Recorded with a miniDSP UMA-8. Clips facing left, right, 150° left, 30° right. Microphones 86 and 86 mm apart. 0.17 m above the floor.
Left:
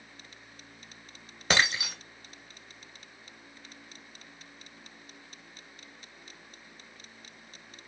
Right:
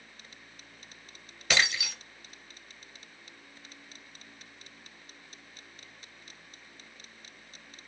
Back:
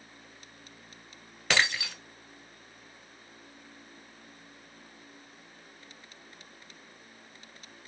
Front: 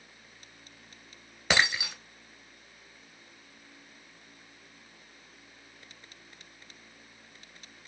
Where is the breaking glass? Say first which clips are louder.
Left 2 dB, front 1 dB; 40° left, 0.7 m.